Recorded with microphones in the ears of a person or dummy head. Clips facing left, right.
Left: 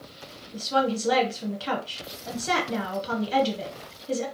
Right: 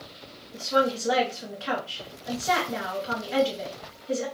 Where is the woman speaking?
40° left (ahead or behind), 0.8 m.